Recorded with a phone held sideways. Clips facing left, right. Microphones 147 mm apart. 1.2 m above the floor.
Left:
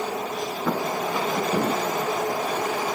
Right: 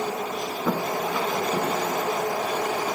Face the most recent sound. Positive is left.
turn(degrees=65)  # may be behind; listen again after turning